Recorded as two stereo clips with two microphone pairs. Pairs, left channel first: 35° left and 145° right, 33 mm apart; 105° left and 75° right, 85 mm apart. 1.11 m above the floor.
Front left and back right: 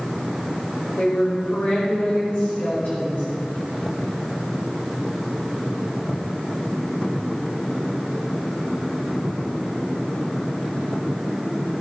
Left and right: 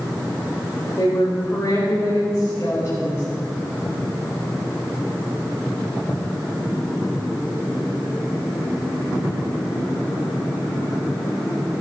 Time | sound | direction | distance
1.0 | a woman speaking | 45° left | 5 m